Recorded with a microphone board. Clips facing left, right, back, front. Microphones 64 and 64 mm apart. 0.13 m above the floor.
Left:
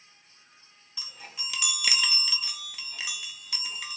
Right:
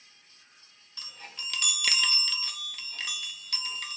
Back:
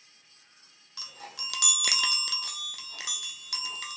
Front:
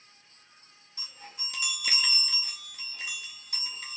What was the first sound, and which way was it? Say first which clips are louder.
A chime: even, back 3 dB; 170° left.